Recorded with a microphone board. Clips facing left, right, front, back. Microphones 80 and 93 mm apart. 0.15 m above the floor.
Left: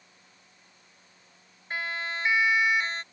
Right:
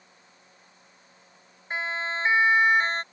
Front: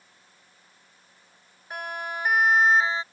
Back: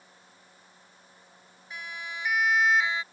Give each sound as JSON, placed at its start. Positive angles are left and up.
{"t": 1.7, "sound": "a siren", "azimuth_deg": -25}